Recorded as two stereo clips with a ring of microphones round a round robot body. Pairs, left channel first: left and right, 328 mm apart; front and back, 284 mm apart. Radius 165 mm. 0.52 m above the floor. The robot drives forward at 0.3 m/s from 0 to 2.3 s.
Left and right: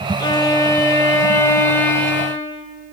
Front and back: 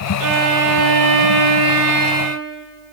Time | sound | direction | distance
0.2 | a violin | 170° left | 0.7 m